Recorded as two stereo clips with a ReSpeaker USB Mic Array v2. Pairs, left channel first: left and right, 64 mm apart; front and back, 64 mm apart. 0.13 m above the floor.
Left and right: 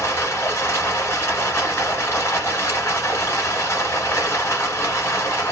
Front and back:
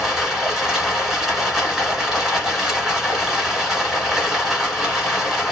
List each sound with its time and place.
0.0 s running water: 95° left, 1.7 m